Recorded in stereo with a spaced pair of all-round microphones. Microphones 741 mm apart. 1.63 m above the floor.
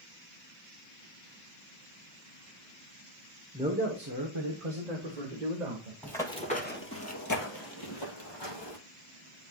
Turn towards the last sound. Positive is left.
turn(degrees=35)  # may be behind; listen again after turning